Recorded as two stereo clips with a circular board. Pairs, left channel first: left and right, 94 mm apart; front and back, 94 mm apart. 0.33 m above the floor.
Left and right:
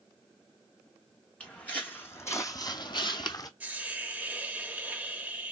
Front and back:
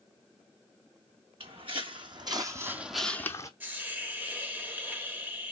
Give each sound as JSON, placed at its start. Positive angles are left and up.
{"t": 1.4, "sound": "footsteps", "azimuth_deg": 165, "distance_m": 1.1}
{"t": 3.6, "sound": "a hiss", "azimuth_deg": -140, "distance_m": 0.8}